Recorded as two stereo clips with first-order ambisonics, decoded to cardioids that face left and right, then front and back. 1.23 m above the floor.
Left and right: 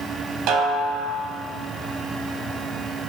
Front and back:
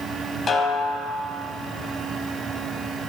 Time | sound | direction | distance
0.5 | a snare drum | 65° right | 1.8 m